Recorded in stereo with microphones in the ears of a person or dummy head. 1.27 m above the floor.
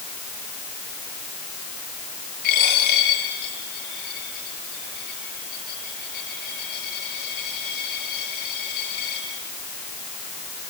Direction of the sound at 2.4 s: 50° left (ahead or behind).